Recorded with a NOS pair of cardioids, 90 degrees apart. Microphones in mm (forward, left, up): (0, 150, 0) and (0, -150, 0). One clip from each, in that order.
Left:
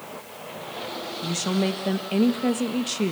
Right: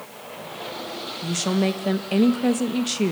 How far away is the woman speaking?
About 1.9 m.